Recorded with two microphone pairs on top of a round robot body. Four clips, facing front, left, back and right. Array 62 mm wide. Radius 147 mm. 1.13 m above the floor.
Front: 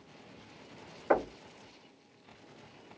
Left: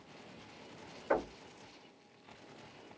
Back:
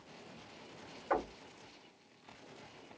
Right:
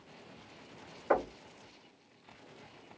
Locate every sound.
1.1 s knocking: 20° right, 1.2 m